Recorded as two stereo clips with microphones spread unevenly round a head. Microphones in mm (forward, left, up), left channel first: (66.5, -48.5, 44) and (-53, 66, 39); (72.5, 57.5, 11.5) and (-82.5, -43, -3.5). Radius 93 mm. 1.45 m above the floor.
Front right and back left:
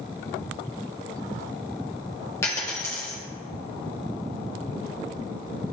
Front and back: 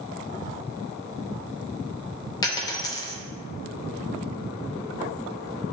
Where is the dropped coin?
10° left, 0.8 m.